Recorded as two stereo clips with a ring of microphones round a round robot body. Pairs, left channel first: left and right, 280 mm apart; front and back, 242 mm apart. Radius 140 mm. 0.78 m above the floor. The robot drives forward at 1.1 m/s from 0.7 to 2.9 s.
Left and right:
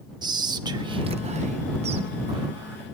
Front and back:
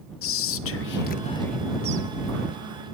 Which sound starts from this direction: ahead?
Whispering, at 0.2 s.